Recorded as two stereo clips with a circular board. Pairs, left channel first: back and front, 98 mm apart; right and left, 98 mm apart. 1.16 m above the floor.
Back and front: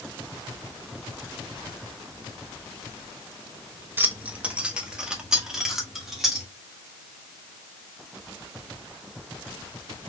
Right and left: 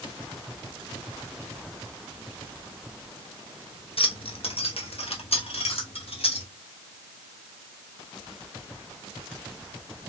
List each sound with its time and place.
4.0 s keys jangling: 70° right, 0.9 m; by 6.5 s 90° right, 2.5 m